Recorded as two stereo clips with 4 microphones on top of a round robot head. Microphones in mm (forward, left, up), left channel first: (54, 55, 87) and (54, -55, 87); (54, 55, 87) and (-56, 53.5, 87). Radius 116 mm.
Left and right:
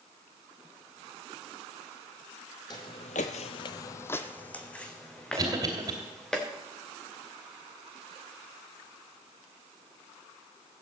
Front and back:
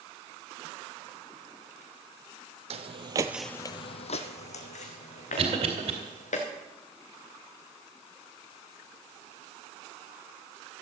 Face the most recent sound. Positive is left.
turn(degrees=-145)